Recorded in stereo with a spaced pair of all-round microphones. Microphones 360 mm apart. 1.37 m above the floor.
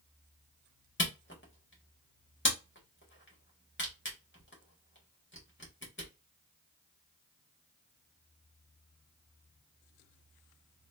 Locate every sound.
1.0 s a camera shutter: 30° left (ahead or behind), 1.3 m